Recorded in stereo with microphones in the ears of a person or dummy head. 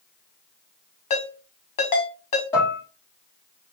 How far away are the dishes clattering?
About 2 m.